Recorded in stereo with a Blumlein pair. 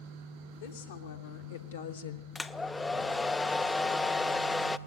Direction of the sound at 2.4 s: 10° left.